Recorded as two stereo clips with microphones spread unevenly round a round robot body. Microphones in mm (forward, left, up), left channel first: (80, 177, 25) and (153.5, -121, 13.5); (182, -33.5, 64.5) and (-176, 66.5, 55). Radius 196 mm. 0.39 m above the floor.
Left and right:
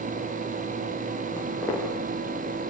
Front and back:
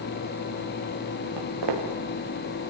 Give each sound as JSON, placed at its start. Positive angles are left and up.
{"t": 1.4, "sound": "footsteps", "azimuth_deg": -175, "distance_m": 5.5}